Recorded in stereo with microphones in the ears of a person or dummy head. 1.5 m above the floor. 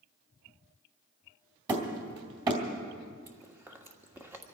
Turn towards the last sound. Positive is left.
turn(degrees=-10)  # may be behind; listen again after turning